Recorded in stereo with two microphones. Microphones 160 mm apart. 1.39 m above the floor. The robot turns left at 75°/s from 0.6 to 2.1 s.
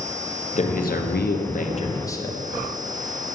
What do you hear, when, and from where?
0.6 s a man speaking: 130° left, 1.0 m; by 2.4 s 20° left, 1.0 m